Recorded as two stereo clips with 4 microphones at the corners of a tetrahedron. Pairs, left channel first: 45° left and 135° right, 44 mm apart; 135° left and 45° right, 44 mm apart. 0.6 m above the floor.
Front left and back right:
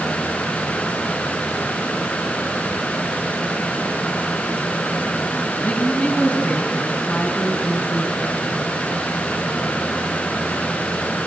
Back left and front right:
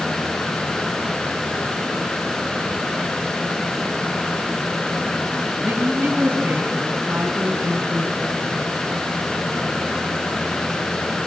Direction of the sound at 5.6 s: 5° right.